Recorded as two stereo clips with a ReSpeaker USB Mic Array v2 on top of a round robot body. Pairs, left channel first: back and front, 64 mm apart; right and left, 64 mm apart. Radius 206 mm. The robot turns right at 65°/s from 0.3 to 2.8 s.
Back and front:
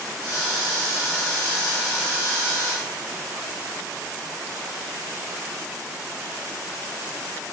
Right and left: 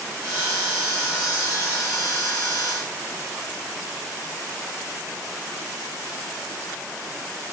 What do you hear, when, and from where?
Only background noise.